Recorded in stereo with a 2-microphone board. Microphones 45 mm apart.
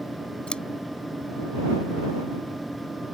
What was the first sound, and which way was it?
Scissors, 20° left (ahead or behind).